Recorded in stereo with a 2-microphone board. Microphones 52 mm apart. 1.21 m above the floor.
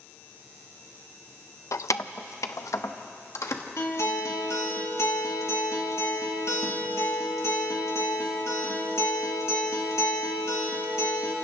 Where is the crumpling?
No crumpling in this recording.